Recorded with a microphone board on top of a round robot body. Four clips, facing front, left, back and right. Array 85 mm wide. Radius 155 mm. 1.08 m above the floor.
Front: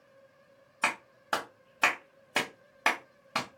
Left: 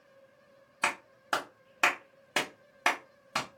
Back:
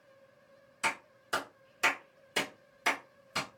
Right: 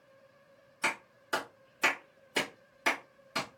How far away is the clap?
About 1.2 m.